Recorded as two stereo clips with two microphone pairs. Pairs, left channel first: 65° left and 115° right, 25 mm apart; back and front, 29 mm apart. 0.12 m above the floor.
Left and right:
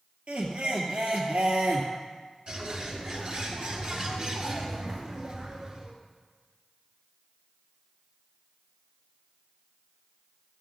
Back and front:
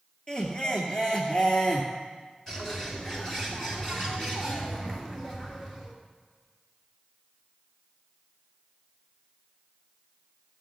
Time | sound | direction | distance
0.3 | laughter | 120° right | 2 m
2.5 | a bird | 120° right | 2 m